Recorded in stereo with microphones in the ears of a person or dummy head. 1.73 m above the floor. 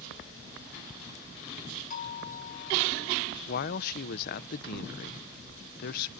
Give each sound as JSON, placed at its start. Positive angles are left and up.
{"t": 1.9, "sound": "a doorbell", "side_deg": 40}
{"t": 3.5, "sound": "a man speaking", "side_deg": 50}